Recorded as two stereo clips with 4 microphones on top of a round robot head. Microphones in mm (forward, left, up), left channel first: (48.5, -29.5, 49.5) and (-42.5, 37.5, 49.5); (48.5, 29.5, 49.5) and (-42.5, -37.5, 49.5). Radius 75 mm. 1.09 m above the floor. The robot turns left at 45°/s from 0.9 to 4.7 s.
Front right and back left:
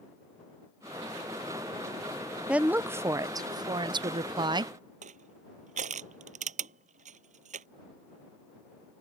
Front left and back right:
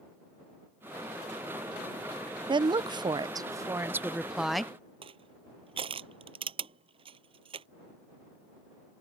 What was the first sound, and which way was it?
A woman speaking, 140° right.